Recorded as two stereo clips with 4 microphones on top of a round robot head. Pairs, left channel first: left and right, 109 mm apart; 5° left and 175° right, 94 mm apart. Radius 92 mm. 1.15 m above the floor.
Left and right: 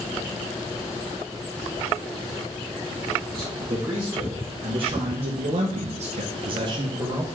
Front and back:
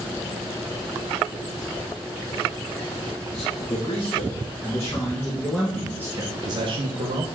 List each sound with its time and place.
3.3 s a man speaking: 40° right, 2 m; by 7.2 s 155° right, 1.1 m